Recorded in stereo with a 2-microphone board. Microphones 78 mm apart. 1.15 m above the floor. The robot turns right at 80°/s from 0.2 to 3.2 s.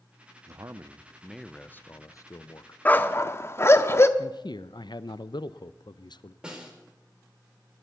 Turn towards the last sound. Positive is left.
turn(degrees=-10)  # may be behind; listen again after turning